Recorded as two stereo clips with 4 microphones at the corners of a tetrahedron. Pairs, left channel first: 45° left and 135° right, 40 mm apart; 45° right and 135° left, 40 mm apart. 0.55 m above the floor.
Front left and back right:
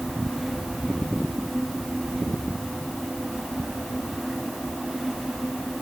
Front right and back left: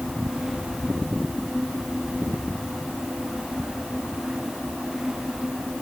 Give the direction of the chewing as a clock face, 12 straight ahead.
No chewing in this recording.